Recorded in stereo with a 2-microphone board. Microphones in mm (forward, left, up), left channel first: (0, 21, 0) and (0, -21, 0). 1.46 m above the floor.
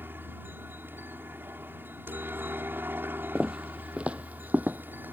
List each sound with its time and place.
0.0 s a helicopter: 60° right (ahead or behind)
3.4 s footsteps: 15° right (ahead or behind); by 5.1 s 50° right (ahead or behind)